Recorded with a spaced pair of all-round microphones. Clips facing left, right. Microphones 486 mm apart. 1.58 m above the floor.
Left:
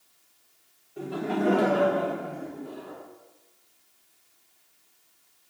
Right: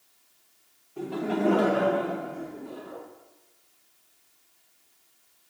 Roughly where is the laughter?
Right.